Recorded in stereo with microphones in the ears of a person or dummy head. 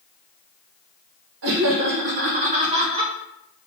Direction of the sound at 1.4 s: 70° right (ahead or behind).